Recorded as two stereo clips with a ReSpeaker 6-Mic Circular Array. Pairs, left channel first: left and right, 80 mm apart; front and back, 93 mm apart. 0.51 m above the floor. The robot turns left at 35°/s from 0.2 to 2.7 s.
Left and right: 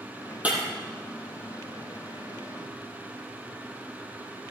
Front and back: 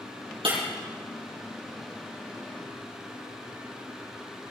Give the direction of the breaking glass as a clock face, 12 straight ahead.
5 o'clock.